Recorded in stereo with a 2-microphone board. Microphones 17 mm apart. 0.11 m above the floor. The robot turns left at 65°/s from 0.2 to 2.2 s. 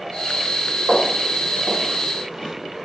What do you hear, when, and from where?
0.9 s footsteps: 90° right, 1.3 m; by 2.5 s 45° left (ahead or behind), 1.1 m